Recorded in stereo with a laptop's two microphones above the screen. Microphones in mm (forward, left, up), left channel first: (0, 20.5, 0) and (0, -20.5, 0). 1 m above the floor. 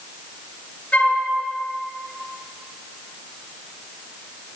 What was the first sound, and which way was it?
A flute, 35° left (ahead or behind).